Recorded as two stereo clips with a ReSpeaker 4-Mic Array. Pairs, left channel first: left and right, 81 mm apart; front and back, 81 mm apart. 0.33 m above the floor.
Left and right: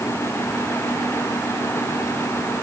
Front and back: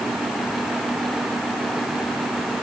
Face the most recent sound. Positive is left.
No sound to turn to.